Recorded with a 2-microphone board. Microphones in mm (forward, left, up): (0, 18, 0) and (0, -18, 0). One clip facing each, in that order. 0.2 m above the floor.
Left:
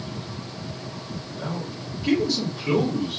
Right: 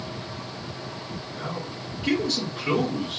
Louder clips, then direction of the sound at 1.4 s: Left 2 dB; 45° right (ahead or behind).